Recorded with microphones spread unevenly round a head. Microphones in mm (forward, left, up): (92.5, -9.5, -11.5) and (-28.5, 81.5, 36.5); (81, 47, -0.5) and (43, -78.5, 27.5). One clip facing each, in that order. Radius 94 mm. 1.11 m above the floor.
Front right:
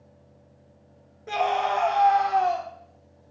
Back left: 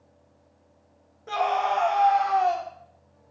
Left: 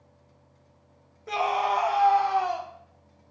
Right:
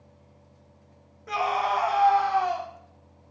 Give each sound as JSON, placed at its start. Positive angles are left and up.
{"t": 1.3, "sound": "a scream", "azimuth_deg": 25, "distance_m": 0.5}